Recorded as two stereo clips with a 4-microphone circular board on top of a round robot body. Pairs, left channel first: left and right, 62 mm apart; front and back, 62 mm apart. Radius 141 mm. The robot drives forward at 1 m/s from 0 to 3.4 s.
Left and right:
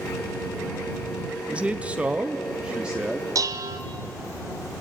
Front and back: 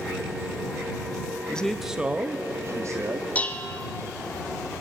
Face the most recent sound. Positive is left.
turn(degrees=-70)